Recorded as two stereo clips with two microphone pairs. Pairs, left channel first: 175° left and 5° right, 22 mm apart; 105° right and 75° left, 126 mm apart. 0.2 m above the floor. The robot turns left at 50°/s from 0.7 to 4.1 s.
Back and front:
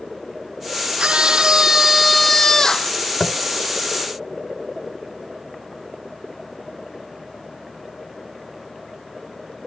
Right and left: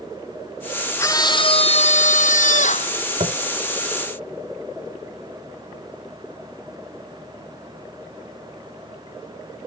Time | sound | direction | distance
1.0 | a scream | 35° right | ?
3.2 | tapping | 110° left | ?